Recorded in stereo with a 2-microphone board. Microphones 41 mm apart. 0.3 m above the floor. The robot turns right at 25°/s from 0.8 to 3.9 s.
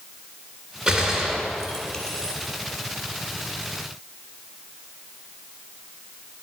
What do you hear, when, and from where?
0.9 s a gunshot: 30° right (ahead or behind), 2.5 m; by 2.3 s 10° left (ahead or behind), 2.5 m